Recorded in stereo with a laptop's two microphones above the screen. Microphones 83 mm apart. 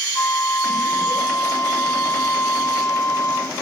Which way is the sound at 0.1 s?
30° left (ahead or behind).